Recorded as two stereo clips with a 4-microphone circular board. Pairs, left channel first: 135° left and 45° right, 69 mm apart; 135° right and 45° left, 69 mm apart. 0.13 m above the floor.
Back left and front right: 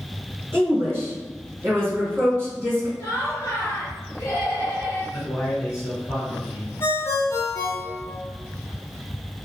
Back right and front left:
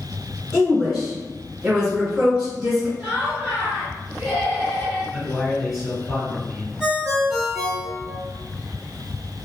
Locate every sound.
0.5 s a woman speaking: 30° right, 1.8 m
3.0 s laughter: 120° left, 1.2 m
5.1 s a man speaking: 135° left, 1.7 m
6.8 s a ringtone: 130° left, 1.5 m